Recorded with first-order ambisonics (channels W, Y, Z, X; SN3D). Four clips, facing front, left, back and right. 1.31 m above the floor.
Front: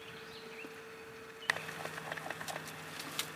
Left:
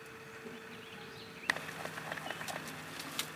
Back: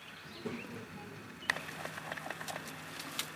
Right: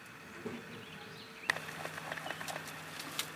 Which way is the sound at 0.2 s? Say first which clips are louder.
Right 6 dB, back 4 dB; 140° right.